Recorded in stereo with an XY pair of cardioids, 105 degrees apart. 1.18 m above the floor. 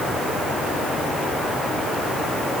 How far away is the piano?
I don't hear a piano.